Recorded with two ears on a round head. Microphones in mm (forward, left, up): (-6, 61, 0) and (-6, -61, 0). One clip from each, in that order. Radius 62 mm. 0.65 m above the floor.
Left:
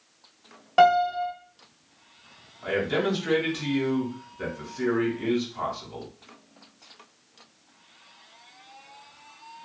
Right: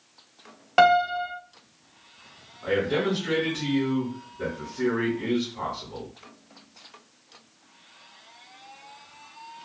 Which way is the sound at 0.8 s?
35° right (ahead or behind).